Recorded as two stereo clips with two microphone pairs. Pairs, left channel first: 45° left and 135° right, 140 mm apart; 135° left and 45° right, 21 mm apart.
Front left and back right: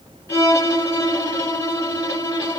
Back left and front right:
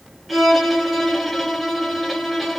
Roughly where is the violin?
Ahead left.